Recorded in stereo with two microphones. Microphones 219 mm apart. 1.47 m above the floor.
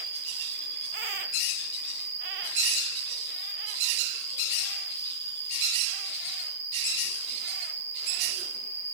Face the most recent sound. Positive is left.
turn(degrees=-10)  # may be behind; listen again after turning